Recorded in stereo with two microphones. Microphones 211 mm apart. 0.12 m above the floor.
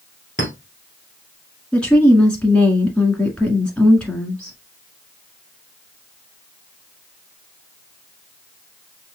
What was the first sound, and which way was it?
A clink, 60° left (ahead or behind).